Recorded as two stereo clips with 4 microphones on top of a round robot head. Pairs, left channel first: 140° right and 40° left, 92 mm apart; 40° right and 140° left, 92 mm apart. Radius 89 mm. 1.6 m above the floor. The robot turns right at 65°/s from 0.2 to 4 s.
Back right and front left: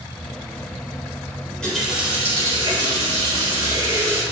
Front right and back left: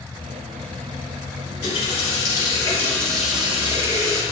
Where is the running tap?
65° right, 3.5 m; by 4.2 s 100° left, 3.5 m.